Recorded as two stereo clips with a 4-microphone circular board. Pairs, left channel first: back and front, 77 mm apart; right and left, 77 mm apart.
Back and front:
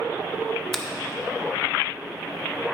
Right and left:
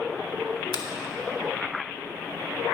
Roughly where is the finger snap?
Right.